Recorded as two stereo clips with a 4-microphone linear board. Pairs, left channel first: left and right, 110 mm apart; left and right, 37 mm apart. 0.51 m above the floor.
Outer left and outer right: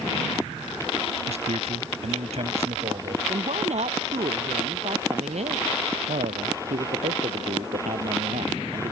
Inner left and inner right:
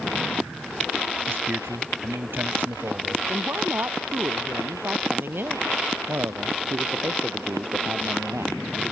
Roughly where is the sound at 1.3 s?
Right.